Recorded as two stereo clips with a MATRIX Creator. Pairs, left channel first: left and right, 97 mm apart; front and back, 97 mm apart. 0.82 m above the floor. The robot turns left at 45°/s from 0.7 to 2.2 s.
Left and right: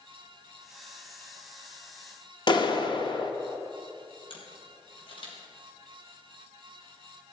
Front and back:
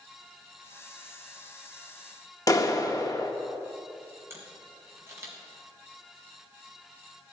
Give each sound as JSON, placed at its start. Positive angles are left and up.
{"t": 2.5, "sound": "a clap", "azimuth_deg": 50, "distance_m": 1.1}
{"t": 4.3, "sound": "a camera shutter", "azimuth_deg": 115, "distance_m": 3.5}